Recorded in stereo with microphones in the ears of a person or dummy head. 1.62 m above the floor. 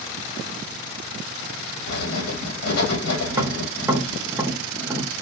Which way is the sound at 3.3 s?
20° right (ahead or behind).